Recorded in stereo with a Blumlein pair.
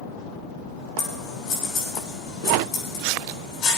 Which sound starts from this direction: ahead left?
Scissors, at 1.0 s.